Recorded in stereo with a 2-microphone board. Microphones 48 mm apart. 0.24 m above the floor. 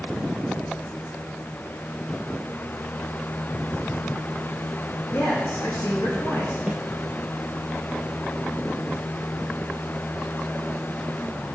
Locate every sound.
5.1 s a man speaking: 75° left (ahead or behind), 6 m
6.7 s a snare drum: 30° right (ahead or behind), 1.8 m